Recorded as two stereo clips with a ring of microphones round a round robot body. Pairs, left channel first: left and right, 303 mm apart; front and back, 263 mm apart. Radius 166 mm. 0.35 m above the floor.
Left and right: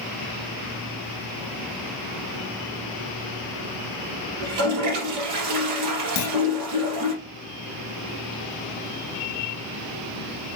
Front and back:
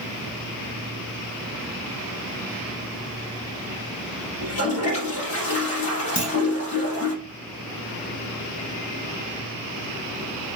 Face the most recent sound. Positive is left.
turn(degrees=65)